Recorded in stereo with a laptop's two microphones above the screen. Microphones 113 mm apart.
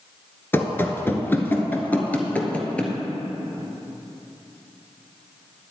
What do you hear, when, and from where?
0.5 s running footsteps: 20° left (ahead or behind), 1.0 m; by 3.0 s 10° left (ahead or behind), 1.3 m